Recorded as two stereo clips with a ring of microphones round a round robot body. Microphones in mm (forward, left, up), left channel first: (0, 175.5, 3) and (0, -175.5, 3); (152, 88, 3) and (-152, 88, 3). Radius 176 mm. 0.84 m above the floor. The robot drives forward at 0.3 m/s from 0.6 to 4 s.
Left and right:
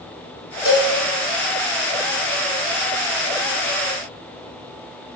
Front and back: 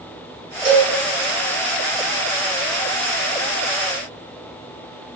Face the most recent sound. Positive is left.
turn(degrees=155)